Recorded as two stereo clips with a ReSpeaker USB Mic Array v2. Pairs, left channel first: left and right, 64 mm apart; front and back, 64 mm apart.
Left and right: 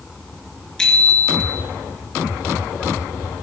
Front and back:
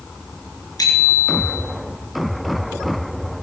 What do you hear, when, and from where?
0.8 s a bicycle bell: 10° left, 3.5 m